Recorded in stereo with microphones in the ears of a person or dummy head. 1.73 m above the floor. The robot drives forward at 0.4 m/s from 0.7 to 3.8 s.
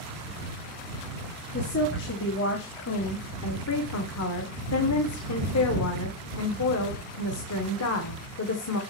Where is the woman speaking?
55° left (ahead or behind), 2.0 m; by 8.8 s 80° left, 1.6 m.